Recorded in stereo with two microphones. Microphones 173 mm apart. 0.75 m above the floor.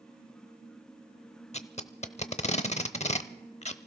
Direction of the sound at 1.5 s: 40° left (ahead or behind).